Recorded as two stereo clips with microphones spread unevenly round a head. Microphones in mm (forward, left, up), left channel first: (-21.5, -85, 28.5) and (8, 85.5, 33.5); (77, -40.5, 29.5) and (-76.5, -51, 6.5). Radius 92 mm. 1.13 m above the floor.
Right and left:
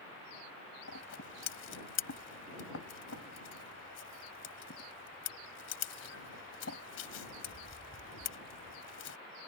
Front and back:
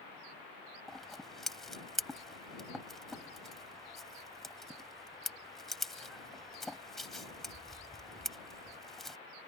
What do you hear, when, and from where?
0.9 s scissors: 80° right